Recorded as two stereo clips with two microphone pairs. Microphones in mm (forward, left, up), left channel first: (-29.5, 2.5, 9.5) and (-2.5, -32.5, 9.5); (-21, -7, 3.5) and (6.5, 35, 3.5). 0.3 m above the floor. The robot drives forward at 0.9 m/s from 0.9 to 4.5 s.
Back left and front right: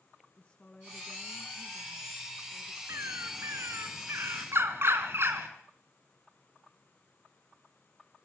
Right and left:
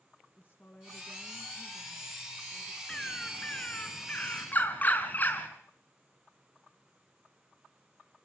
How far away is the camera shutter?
I don't hear a camera shutter.